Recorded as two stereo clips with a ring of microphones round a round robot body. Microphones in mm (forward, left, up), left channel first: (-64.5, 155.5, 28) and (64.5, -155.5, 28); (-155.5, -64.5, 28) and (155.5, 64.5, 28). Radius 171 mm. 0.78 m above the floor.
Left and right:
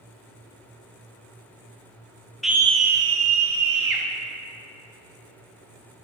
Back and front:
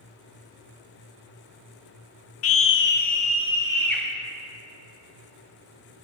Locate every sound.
2.4 s a scream: 160° right, 0.8 m; by 4.0 s 70° right, 1.3 m